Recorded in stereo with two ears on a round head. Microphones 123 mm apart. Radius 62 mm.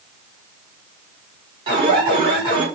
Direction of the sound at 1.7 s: 40° right (ahead or behind).